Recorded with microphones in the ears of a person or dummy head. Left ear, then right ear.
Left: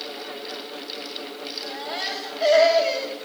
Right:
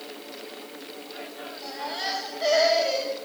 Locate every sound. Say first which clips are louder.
1.6 s a baby crying: even; 20° left (ahead or behind), 6.5 m